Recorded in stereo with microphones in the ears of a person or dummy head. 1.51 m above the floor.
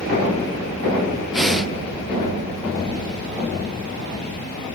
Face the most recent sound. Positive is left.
turn(degrees=0)  # may be behind; listen again after turning